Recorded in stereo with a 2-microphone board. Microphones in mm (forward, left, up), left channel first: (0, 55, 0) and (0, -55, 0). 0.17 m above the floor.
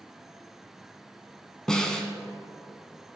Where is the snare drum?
5° left (ahead or behind), 0.9 m.